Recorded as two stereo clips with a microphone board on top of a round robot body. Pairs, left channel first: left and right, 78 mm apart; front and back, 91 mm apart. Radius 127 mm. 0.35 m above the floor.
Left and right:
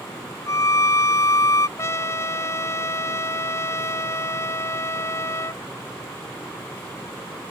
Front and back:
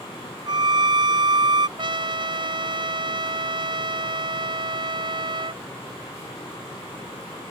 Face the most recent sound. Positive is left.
turn(degrees=145)